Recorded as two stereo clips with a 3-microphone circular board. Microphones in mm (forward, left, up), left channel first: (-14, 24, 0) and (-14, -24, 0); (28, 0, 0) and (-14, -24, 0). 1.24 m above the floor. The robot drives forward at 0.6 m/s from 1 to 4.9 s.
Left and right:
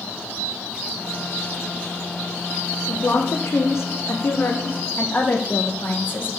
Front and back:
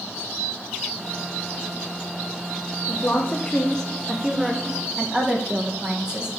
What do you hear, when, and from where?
2.9 s a woman speaking: 65° left, 0.9 m; by 6.3 s 140° left, 1.1 m